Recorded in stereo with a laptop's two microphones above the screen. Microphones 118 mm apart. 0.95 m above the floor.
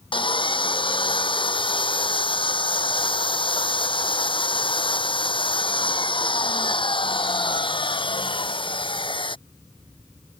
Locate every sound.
0.1 s sawing: 45° left (ahead or behind)